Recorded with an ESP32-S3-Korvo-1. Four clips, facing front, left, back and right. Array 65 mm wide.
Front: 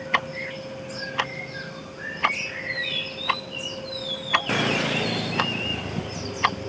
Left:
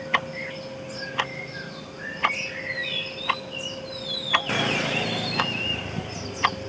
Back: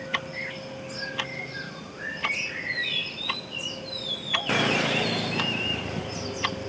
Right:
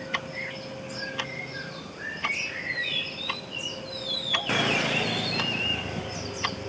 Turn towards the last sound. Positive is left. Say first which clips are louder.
# left 7 dB, front 7 dB
turn(degrees=40)